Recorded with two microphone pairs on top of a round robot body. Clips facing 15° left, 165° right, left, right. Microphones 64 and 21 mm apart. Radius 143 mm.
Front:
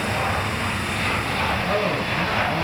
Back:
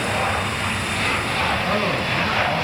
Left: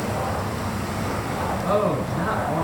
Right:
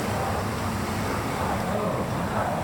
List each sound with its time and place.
1.6 s a man speaking: 140° left, 5.5 m